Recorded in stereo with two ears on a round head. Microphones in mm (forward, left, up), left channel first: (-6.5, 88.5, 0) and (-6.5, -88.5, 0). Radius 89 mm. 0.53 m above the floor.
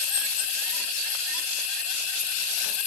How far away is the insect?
About 3 m.